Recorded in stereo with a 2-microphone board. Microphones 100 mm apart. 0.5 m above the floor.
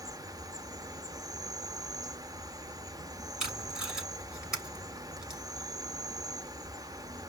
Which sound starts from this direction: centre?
Tape being pulled, at 3.4 s.